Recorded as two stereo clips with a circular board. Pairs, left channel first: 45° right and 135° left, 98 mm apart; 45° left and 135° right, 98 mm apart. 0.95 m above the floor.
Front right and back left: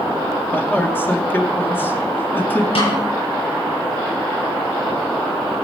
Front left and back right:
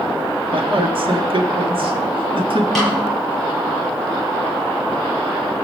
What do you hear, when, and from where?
0.5 s a man speaking: 115° right, 2 m
2.8 s a snare drum: 40° right, 10 m